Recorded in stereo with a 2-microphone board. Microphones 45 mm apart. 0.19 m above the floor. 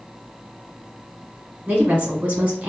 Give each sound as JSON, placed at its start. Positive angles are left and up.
{"t": 1.7, "sound": "a woman speaking", "side_deg": -25, "distance_m": 1.4}